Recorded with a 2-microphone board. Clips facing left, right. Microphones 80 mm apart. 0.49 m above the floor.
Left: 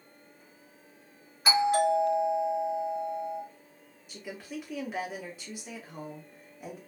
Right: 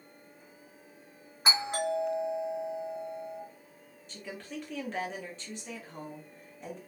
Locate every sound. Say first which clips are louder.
1.4 s a doorbell: left 7 dB; 30° right (ahead or behind), 1.5 m
4.1 s a woman speaking: left 1 dB; 10° left (ahead or behind), 0.8 m